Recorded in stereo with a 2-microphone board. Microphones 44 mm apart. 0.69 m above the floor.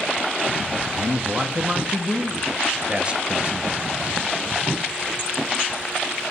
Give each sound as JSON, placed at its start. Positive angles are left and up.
{"t": 0.9, "sound": "a man speaking", "side_deg": -25, "distance_m": 0.5}